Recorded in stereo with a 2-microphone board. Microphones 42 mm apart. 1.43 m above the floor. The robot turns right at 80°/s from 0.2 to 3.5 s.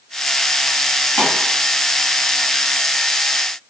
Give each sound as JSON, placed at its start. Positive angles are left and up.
{"t": 1.2, "sound": "a pop", "side_deg": 80, "distance_m": 2.0}